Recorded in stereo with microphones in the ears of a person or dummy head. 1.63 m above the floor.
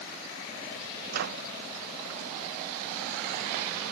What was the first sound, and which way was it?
A microwave, 60° right (ahead or behind).